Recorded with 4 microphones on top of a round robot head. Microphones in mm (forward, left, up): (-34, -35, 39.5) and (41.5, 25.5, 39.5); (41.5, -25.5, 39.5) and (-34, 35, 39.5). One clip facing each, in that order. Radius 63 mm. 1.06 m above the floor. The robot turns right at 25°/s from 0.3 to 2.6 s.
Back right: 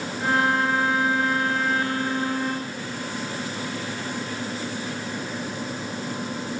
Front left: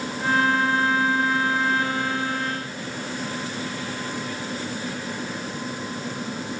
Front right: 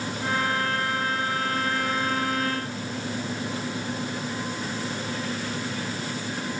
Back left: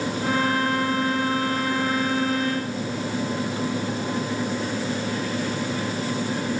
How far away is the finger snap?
No finger snap in this recording.